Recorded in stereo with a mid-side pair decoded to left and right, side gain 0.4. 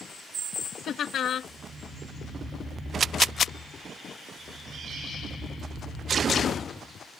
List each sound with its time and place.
0.9 s laughter: 65° left